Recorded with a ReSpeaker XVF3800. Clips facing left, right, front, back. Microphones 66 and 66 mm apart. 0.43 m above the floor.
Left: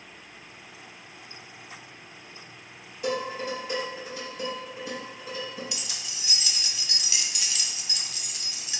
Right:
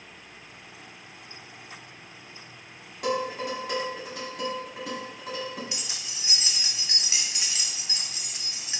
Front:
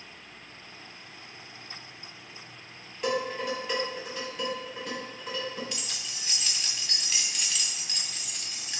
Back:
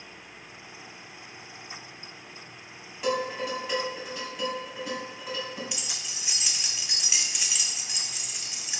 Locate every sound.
3.0 s dishes clattering: 95° right, 2 m
5.7 s keys jangling: 110° right, 0.5 m